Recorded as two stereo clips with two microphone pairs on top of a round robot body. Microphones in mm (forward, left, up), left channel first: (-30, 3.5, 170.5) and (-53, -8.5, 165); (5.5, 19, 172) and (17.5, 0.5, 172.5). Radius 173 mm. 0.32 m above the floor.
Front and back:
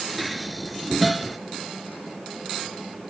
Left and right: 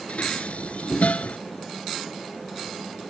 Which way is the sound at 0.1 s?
115° left.